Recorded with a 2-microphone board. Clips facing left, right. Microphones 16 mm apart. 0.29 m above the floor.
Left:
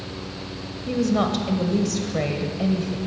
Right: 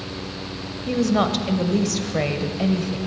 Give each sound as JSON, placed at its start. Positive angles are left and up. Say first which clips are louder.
{"t": 0.9, "sound": "a woman speaking", "louder": "right 2 dB", "side_deg": -15, "distance_m": 1.0}